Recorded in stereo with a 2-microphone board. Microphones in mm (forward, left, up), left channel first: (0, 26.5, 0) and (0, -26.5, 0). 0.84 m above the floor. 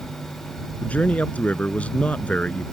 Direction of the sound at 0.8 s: 25° left (ahead or behind).